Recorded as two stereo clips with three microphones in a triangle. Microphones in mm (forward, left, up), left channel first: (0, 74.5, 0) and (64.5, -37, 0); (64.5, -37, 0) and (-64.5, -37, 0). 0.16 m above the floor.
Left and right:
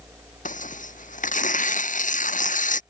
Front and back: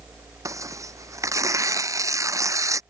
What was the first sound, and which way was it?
Tearing paper, 115° left.